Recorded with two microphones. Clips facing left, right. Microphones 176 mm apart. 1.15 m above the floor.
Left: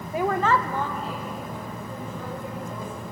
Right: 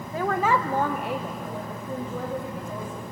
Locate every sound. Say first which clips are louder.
0.1 s a woman speaking: left 1 dB; 15° left (ahead or behind), 0.7 m; by 3.0 s 75° right (ahead or behind), 2.5 m